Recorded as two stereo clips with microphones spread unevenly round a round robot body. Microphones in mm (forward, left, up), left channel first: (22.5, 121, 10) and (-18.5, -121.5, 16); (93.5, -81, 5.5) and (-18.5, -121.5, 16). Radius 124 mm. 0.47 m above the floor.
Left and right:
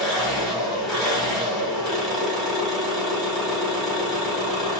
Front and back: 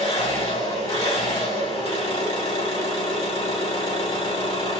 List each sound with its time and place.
0.0 s an engine running: 10° right, 2.5 m